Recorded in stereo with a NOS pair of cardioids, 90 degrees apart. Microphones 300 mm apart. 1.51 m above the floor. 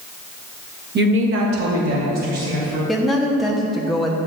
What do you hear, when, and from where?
0.9 s a woman speaking: 35° right, 0.9 m; by 2.8 s 60° right, 3.5 m
2.9 s a woman speaking: straight ahead, 0.8 m